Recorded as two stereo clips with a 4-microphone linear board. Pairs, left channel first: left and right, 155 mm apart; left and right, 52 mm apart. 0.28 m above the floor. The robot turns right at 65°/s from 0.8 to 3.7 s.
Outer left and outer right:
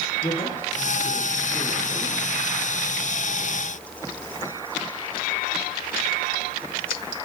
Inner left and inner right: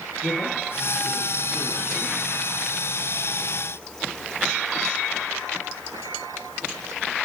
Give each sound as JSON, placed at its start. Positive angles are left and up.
{"t": 0.2, "sound": "a man speaking", "azimuth_deg": 130, "distance_m": 7.5}